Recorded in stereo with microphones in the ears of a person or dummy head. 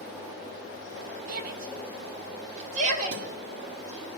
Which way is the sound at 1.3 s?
60° right (ahead or behind).